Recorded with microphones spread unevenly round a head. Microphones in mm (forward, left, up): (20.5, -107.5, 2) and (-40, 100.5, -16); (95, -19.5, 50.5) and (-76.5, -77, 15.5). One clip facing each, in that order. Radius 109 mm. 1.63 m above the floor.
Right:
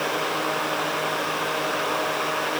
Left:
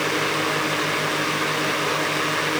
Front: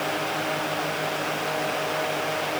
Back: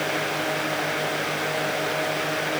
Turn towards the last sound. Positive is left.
No sound to turn to.